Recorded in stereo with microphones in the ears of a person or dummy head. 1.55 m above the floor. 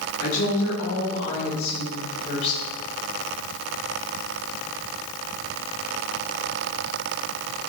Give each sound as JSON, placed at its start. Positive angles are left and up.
{"t": 0.2, "sound": "a woman speaking", "side_deg": 50, "distance_m": 4.5}